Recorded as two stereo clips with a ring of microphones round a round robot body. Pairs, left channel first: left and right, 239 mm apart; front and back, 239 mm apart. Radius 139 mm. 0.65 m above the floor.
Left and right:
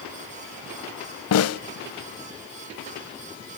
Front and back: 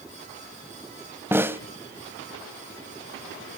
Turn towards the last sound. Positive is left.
turn(degrees=100)